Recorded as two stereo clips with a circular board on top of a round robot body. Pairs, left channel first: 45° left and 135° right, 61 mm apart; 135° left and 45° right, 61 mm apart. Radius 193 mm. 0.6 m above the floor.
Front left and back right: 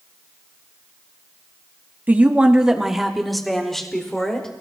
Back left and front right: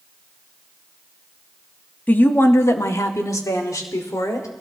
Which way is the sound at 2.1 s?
Straight behind.